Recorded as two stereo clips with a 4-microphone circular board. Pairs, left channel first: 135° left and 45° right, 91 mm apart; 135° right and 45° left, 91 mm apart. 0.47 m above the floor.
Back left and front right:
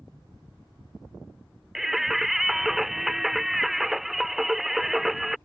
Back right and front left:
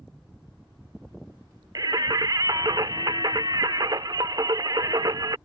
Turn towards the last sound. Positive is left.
turn(degrees=40)